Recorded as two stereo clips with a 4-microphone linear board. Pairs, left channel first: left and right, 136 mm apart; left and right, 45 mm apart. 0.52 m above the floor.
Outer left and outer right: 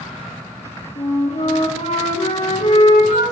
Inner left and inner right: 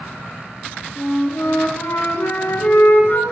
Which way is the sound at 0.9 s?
55° left (ahead or behind).